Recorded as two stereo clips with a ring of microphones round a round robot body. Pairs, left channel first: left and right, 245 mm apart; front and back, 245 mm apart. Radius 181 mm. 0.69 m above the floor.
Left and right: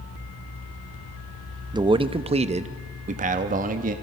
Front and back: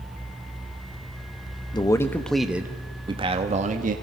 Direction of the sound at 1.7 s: 45° right.